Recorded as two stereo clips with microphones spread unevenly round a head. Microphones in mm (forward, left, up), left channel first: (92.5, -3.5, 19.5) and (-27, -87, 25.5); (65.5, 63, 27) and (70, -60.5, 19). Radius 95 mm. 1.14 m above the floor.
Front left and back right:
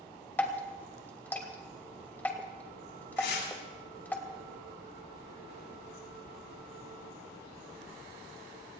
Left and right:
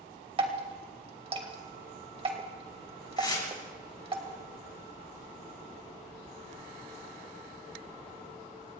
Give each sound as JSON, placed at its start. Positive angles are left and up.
{"t": 0.4, "sound": "dripping", "azimuth_deg": -45, "distance_m": 2.5}
{"t": 3.2, "sound": "tearing paper", "azimuth_deg": 35, "distance_m": 7.0}